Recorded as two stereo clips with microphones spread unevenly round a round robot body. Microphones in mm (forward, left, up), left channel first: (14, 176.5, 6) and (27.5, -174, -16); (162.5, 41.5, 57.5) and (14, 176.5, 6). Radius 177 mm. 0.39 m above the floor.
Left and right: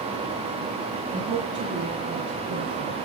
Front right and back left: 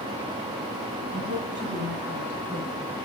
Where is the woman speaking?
165° right, 3.5 m; by 2.9 s 140° right, 4 m.